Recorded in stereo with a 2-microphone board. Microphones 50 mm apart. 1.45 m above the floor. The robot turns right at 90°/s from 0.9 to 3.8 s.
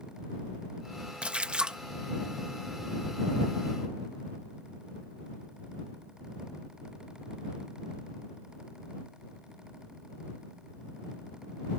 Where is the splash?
20° right (ahead or behind); by 1.8 s 15° right (ahead or behind).